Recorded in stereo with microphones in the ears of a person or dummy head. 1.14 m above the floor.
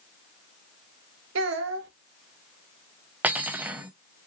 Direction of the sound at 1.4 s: 70° right (ahead or behind).